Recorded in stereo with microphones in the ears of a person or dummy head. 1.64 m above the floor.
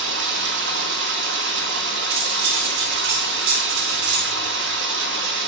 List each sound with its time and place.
0.0 s running water: 65° right (ahead or behind), 3 m
2.1 s cutlery clinking: 55° right (ahead or behind), 1.4 m